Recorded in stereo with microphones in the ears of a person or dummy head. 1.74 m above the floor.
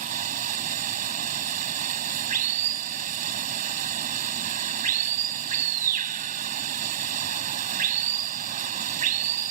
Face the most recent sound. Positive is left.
turn(degrees=-40)  # may be behind; listen again after turning